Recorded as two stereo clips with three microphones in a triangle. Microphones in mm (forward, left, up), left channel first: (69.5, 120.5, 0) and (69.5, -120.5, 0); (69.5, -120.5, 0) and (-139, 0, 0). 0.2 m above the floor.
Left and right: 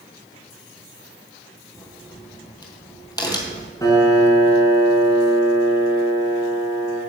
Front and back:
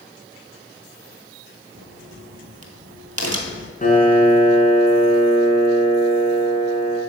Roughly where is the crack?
Behind.